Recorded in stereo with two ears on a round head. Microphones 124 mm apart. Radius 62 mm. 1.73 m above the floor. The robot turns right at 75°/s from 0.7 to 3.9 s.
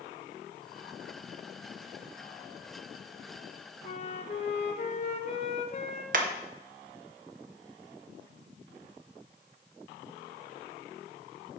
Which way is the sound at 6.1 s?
65° right (ahead or behind).